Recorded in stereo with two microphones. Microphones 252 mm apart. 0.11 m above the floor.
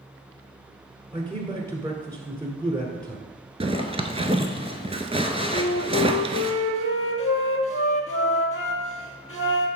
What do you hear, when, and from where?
1.1 s a man speaking: 15° right (ahead or behind), 1.1 m
3.6 s a zipper: 25° right (ahead or behind), 0.6 m
5.5 s a flute: 60° left (ahead or behind), 0.9 m